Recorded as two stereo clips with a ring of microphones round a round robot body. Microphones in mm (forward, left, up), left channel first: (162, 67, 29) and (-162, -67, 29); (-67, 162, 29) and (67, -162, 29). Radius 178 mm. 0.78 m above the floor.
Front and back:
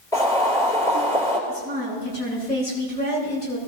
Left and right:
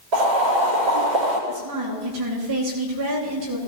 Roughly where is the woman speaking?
Ahead right.